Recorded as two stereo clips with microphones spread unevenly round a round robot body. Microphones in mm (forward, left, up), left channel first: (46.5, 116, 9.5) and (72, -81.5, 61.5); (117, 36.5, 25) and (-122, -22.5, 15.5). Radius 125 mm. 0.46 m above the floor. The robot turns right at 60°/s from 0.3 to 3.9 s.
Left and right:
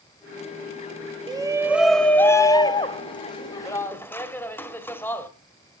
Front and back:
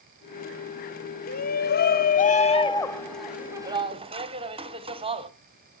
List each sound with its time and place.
1.3 s a shout: 10° right, 1.4 m; by 5.3 s 150° left, 1.4 m